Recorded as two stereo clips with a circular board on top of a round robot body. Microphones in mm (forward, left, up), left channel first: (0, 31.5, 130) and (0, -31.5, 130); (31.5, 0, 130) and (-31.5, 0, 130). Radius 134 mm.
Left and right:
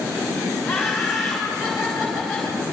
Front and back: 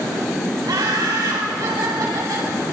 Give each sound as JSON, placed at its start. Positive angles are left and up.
{"t": 0.7, "sound": "laughter", "azimuth_deg": -175, "distance_m": 6.0}